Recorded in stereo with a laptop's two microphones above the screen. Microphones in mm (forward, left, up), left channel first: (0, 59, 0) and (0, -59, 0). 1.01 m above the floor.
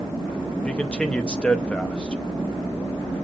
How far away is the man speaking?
About 0.8 m.